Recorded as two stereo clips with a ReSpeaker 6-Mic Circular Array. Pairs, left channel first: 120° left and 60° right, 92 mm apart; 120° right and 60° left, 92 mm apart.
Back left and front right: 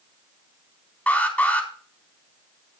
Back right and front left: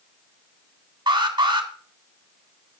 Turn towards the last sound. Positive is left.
turn(degrees=50)